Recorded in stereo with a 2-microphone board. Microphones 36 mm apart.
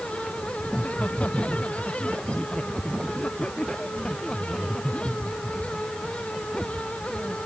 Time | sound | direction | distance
0.7 | laughter | 35° left (ahead or behind) | ?